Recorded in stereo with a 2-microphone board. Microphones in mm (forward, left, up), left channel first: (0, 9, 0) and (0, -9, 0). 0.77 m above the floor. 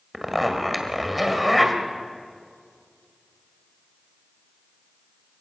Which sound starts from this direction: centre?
A zipper, at 0.1 s.